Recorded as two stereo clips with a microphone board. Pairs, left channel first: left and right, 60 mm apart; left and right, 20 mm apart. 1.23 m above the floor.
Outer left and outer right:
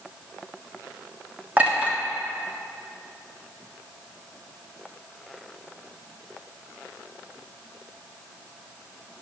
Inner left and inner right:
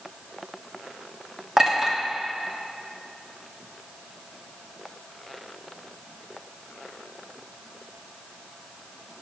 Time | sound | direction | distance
1.6 | a clink | 25° right (ahead or behind) | 1.4 m